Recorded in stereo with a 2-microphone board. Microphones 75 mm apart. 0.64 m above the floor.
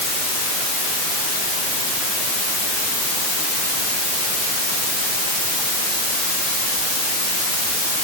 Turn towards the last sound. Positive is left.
No sound to turn to.